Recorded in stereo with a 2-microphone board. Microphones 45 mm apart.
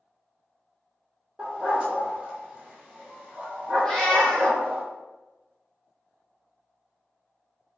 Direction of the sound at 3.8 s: 15° left (ahead or behind).